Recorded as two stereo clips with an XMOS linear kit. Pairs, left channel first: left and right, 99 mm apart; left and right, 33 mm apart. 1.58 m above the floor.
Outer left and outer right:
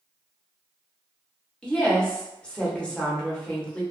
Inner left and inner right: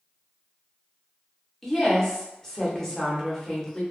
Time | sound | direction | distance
1.6 | a woman speaking | 10° left (ahead or behind) | 0.8 m